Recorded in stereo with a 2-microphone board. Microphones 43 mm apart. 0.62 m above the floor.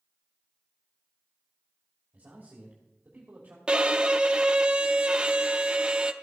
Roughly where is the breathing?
I don't hear breathing.